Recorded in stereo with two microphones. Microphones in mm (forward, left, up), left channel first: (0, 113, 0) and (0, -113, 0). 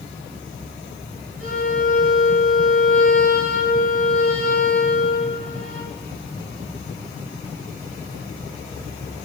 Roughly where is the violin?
Right.